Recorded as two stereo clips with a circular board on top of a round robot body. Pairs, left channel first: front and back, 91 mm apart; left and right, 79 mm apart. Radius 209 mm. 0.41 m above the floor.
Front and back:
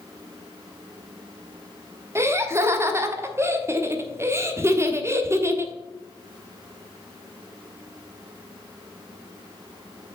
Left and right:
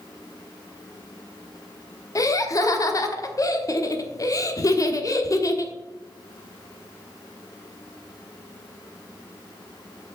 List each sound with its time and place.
2.1 s laughter: 125° left, 1.3 m